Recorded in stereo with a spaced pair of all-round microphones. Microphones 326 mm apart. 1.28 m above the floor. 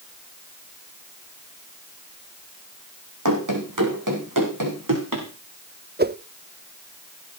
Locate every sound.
3.2 s running footsteps: 65° right (ahead or behind), 4.5 m; by 5.3 s 75° right (ahead or behind), 5.5 m
6.0 s a whoosh: 30° right (ahead or behind), 0.7 m